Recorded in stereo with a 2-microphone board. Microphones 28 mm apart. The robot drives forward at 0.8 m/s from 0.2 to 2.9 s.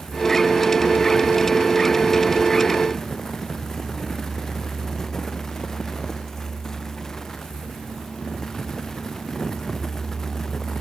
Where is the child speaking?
No child speaking in this recording.